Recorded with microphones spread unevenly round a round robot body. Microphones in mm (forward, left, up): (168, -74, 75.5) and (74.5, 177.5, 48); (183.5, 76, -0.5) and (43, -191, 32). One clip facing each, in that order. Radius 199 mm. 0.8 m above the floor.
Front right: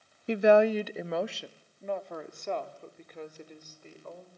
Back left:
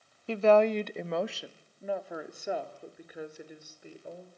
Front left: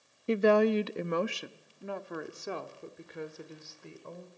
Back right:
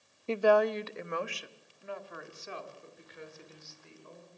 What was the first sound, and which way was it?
A woman speaking, 5° left.